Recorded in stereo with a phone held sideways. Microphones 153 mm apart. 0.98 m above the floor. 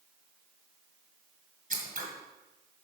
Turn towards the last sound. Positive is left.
turn(degrees=-65)  # may be behind; listen again after turning